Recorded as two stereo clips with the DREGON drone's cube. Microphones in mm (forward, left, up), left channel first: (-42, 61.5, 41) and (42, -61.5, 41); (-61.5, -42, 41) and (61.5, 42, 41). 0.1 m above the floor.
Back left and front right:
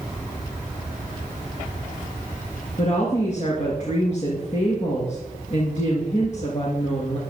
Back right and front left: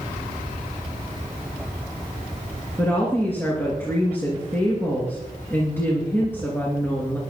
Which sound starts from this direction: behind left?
A woman speaking, at 2.8 s.